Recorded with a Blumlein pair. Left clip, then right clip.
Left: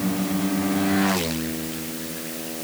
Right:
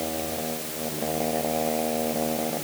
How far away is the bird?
I don't hear a bird.